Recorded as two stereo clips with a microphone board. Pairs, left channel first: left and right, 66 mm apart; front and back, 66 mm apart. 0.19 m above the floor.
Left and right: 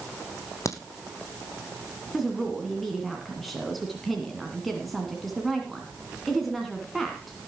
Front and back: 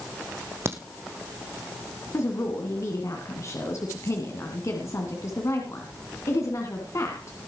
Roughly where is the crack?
Behind left.